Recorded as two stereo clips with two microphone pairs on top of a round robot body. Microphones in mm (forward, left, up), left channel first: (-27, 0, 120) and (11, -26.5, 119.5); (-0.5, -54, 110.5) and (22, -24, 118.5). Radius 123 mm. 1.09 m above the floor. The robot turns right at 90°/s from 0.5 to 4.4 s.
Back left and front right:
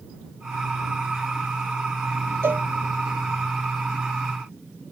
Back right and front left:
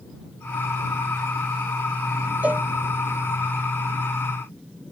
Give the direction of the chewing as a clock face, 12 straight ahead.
No chewing in this recording.